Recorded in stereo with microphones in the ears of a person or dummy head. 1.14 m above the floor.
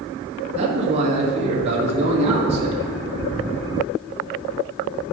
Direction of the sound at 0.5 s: 30° right (ahead or behind).